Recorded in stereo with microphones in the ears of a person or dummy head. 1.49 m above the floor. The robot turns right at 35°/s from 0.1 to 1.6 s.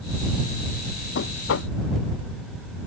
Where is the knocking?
65° left (ahead or behind); by 1.8 s 75° left (ahead or behind).